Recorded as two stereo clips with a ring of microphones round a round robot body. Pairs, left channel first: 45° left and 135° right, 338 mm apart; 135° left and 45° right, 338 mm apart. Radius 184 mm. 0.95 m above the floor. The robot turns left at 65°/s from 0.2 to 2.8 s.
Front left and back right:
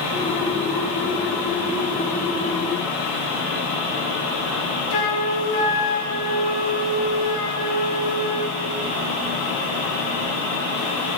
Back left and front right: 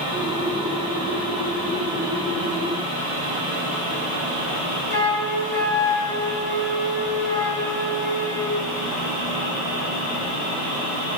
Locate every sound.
4.9 s a flute: 25° left, 2.5 m